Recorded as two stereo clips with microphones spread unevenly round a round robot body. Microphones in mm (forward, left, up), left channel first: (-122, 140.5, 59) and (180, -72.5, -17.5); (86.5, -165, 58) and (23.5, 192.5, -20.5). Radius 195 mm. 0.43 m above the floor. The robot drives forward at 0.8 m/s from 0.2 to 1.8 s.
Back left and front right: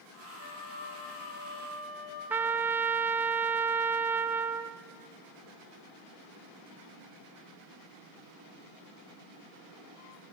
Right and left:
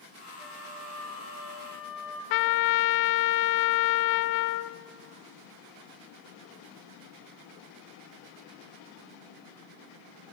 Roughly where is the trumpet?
Right.